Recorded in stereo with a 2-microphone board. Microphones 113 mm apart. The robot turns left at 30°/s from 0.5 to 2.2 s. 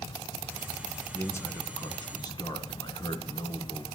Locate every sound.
1.1 s a man speaking: 150° left, 2 m; by 3.9 s 120° left, 2 m